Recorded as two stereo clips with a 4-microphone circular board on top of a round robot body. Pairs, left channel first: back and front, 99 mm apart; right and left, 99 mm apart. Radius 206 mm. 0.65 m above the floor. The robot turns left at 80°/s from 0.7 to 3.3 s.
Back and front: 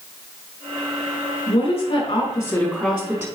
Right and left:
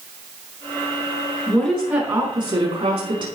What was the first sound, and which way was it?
A woman speaking, 165° right.